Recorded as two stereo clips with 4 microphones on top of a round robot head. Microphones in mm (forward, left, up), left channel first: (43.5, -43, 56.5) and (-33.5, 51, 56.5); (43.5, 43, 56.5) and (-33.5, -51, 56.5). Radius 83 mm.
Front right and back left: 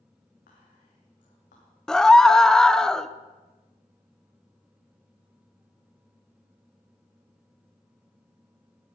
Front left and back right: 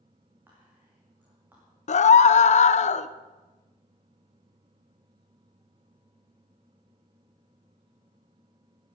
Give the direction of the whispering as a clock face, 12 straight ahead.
2 o'clock.